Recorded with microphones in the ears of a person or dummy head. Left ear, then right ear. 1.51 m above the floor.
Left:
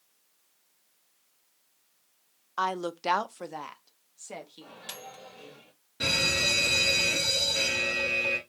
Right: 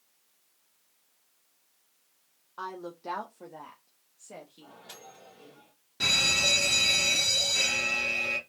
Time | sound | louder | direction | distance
2.6 | a woman speaking | left 9 dB | 70° left (ahead or behind) | 0.5 m
4.6 | a microwave | left 5 dB | 65° left (ahead or behind) | 2 m
6.0 | a fire alarm | right 2 dB | 15° right (ahead or behind) | 1.6 m